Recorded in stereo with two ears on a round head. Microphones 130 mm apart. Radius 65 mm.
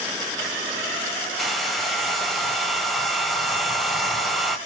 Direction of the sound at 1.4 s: Centre (ahead or behind).